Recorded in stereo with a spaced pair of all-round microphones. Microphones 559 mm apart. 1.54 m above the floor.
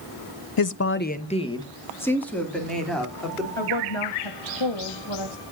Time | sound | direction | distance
0.6 | a woman speaking | 40° left (ahead or behind) | 0.5 m
3.6 | a woman speaking | 55° left (ahead or behind) | 1.9 m